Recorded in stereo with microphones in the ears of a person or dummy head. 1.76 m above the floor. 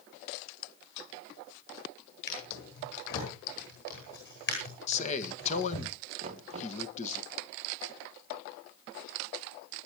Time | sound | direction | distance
2.3 | a drawer | 55° left (ahead or behind) | 9.5 m
4.9 | a man speaking | 40° left (ahead or behind) | 1.6 m
6.2 | knocking | 35° right (ahead or behind) | 1.9 m